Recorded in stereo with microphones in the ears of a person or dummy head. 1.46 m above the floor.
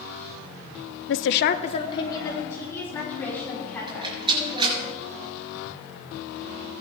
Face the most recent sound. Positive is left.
turn(degrees=-25)  # may be behind; listen again after turning